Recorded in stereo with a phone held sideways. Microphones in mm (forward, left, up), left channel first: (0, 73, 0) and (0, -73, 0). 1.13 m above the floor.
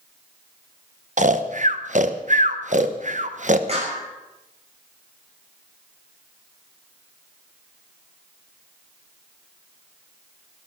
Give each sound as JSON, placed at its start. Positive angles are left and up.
{"t": 1.2, "sound": "snoring", "side_deg": -60, "distance_m": 0.9}
{"t": 3.7, "sound": "a clap", "side_deg": -45, "distance_m": 5.5}